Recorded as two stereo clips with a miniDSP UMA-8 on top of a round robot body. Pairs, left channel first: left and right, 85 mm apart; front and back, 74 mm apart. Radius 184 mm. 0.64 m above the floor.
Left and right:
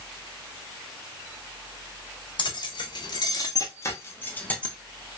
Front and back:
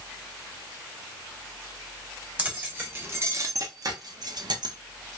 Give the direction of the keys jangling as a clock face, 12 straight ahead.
8 o'clock.